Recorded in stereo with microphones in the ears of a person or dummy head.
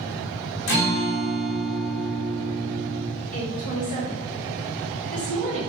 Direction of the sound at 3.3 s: 40° left (ahead or behind).